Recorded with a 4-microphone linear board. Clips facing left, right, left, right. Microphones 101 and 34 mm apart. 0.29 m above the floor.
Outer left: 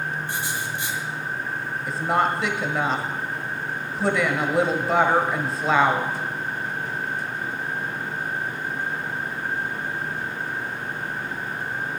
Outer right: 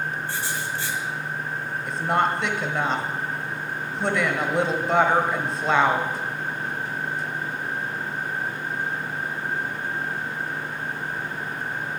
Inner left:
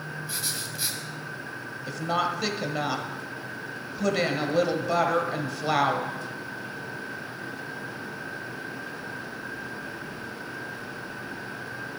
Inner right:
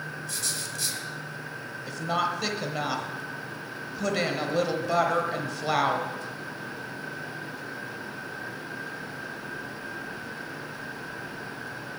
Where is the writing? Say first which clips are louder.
Even, inner left 1 dB; 20° left (ahead or behind), 1.6 m.